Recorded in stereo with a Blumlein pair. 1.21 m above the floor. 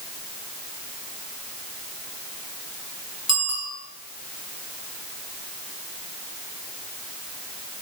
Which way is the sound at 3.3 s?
5° right.